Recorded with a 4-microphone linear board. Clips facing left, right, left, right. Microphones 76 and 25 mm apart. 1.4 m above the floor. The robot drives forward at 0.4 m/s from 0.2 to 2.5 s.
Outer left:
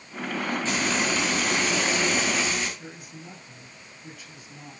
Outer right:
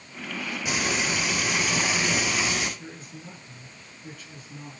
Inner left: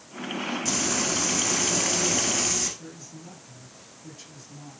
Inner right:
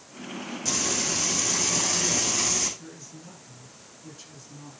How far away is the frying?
About 4 m.